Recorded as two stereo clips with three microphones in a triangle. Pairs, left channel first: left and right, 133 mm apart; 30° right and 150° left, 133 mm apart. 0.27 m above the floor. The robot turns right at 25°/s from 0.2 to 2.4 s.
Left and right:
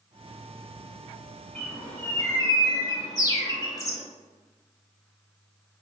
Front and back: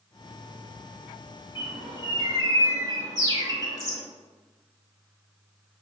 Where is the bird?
10° left, 0.7 m; by 4.0 s 30° left, 0.7 m.